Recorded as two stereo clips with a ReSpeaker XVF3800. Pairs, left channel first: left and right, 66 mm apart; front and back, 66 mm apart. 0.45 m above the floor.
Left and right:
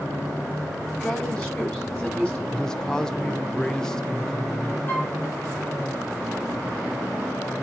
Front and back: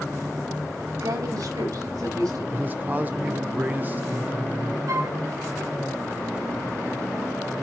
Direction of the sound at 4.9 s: 150° left.